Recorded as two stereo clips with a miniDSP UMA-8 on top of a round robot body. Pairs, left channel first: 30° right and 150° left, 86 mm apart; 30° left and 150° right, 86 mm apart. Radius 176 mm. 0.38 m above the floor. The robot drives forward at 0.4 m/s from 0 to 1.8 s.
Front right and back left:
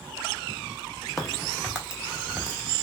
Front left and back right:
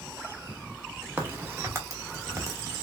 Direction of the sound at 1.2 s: 120° right.